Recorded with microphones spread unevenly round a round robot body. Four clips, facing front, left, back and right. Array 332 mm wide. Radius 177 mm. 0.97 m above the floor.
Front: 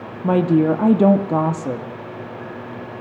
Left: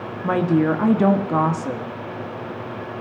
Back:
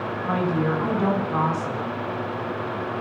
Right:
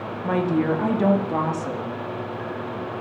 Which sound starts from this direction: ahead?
A woman speaking, at 0.2 s.